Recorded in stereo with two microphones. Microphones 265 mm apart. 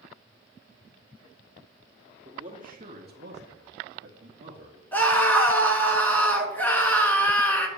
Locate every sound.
2.2 s a man speaking: 25° right (ahead or behind), 2.5 m; by 4.8 s 45° right (ahead or behind), 2.5 m
4.9 s a scream: 5° left (ahead or behind), 1.7 m